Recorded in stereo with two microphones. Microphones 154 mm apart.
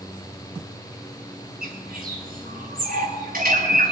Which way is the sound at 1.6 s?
70° right (ahead or behind).